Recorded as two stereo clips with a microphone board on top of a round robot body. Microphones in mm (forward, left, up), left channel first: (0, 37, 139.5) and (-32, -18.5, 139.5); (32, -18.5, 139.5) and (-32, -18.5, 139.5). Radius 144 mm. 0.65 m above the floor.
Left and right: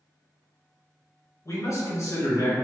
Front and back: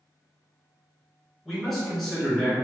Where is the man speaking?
85° left, 1.8 m.